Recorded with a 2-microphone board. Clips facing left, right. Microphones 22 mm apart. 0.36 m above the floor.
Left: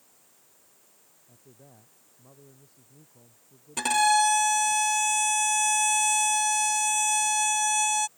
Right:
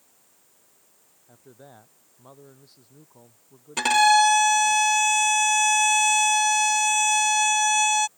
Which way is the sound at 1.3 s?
75° right (ahead or behind).